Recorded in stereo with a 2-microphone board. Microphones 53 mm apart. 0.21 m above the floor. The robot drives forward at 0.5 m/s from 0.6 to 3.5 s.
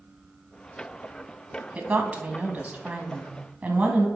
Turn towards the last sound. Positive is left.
turn(degrees=-30)  # may be behind; listen again after turning